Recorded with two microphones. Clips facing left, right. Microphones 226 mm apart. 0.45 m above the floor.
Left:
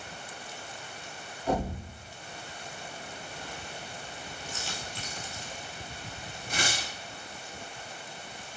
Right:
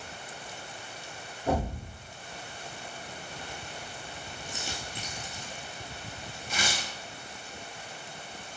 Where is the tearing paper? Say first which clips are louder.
Left 1 dB; 55° left (ahead or behind), 1.3 m.